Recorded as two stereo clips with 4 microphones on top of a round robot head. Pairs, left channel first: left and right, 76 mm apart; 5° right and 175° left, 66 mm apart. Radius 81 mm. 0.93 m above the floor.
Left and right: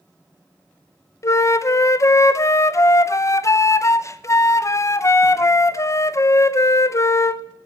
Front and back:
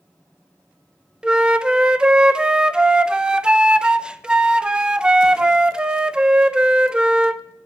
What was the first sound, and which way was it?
A flute, 100° left.